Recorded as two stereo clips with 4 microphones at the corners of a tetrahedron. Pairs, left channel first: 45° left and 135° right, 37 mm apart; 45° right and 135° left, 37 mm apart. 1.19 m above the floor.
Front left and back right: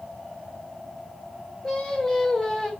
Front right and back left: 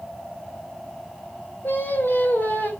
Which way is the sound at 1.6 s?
30° right.